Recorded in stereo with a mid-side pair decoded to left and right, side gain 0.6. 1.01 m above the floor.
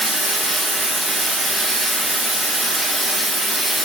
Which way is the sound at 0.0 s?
10° right.